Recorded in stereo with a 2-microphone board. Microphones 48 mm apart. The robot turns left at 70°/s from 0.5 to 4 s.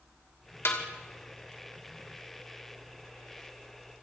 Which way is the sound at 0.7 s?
60° left (ahead or behind).